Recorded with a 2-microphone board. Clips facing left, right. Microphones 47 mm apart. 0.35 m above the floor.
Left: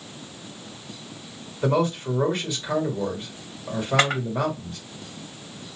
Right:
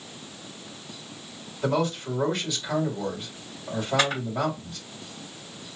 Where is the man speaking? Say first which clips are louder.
Left 3 dB; 30° left (ahead or behind), 2 m.